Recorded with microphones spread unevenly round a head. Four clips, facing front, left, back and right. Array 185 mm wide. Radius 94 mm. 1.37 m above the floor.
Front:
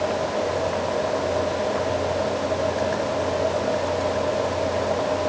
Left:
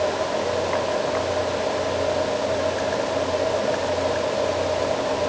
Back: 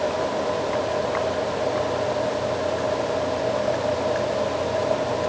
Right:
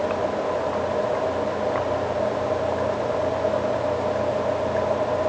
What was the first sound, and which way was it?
Only background noise.